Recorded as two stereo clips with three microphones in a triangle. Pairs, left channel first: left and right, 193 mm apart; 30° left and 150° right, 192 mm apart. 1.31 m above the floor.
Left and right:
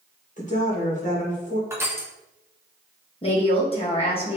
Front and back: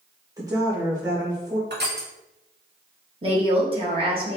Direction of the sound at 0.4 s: 140° left.